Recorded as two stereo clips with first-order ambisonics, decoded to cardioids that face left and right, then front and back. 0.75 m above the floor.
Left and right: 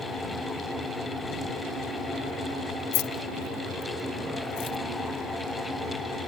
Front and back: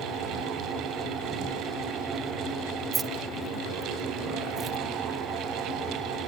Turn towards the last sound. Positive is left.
turn(degrees=110)